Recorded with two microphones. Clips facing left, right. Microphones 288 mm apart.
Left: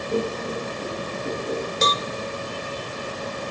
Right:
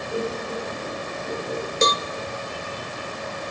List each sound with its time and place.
0.1 s laughter: 40° left (ahead or behind), 6.5 m; by 1.6 s 35° left (ahead or behind), 7.5 m
1.8 s a cowbell: 30° right (ahead or behind), 0.5 m